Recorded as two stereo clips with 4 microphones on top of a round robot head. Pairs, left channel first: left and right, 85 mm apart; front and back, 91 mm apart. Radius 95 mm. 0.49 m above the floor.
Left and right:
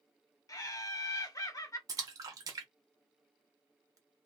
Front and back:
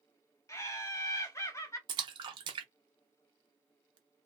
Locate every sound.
0.5 s laughter: 50° left, 1.2 m
1.9 s a splash: 140° right, 0.6 m